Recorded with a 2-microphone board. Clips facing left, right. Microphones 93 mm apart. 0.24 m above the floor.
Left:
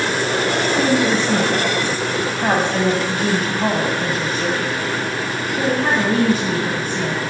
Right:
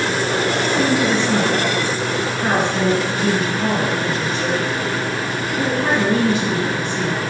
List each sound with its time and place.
0.6 s a woman speaking: 45° left (ahead or behind), 2 m